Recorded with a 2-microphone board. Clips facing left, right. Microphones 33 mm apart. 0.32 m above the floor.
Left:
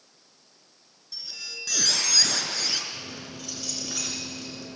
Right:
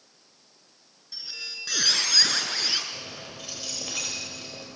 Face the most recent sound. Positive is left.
turn(degrees=-50)  # may be behind; listen again after turning